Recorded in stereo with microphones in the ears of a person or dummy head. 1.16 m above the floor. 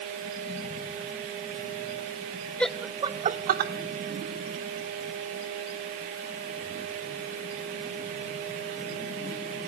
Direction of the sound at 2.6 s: 5° left (ahead or behind).